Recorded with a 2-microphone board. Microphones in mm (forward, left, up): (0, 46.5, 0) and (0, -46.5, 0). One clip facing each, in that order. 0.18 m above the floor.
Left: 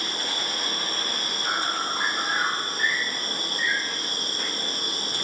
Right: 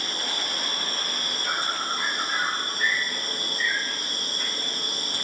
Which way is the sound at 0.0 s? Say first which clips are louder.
Left 1 dB; 80° left.